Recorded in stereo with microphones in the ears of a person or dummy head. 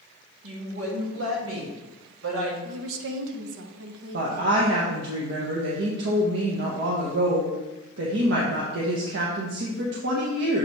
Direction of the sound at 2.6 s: 80° right.